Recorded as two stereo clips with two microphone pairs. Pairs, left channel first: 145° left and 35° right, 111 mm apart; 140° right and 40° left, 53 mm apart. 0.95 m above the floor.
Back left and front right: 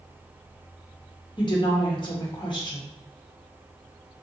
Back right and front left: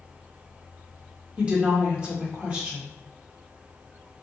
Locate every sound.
1.4 s a woman speaking: 100° left, 1.1 m